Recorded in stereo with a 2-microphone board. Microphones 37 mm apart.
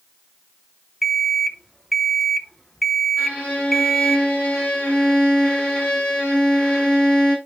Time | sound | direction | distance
1.0 | an alarm clock | 5° left (ahead or behind) | 0.6 m
3.2 | a violin | 40° left (ahead or behind) | 3.5 m